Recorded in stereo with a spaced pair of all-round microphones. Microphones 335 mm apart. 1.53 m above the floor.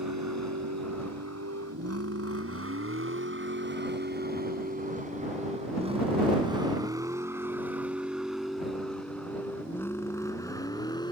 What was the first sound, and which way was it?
A vehicle, 55° right (ahead or behind).